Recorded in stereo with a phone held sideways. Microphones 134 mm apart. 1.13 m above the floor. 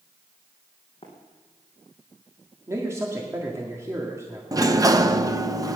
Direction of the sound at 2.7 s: 20° right (ahead or behind).